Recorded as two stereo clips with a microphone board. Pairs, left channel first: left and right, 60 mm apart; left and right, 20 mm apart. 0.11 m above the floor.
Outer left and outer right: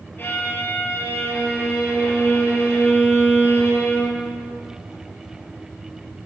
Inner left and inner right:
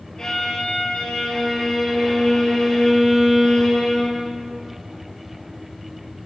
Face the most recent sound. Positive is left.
turn(degrees=35)  # may be behind; listen again after turning